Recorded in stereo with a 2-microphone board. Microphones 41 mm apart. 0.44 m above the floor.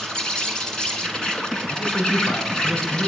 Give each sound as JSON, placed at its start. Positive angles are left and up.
{"t": 0.0, "sound": "an insect", "side_deg": 20, "distance_m": 1.9}
{"t": 1.7, "sound": "a man speaking", "side_deg": 65, "distance_m": 4.5}